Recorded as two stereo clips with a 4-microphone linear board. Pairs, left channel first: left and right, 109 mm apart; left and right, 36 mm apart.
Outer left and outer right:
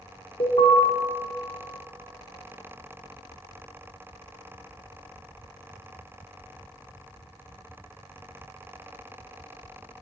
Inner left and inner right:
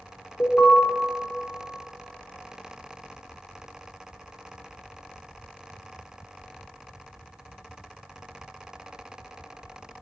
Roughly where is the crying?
No crying in this recording.